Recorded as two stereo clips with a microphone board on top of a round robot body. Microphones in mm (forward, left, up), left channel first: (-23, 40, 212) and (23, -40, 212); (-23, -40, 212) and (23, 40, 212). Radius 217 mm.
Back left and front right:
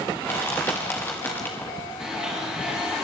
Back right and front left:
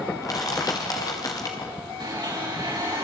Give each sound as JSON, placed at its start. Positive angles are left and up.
{"t": 0.2, "sound": "crushing", "azimuth_deg": -170, "distance_m": 0.9}
{"t": 2.0, "sound": "a blender", "azimuth_deg": 25, "distance_m": 6.0}